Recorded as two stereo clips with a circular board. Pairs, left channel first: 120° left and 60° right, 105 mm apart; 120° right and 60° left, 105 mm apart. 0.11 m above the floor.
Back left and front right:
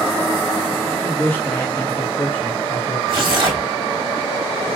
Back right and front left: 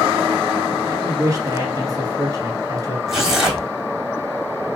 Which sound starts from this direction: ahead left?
A man speaking, at 0.8 s.